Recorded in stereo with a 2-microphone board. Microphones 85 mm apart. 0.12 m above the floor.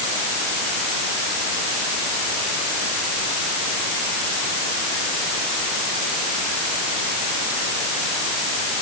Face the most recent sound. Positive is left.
No sound to turn to.